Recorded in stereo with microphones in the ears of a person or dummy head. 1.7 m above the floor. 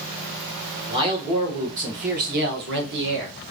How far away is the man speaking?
About 2 m.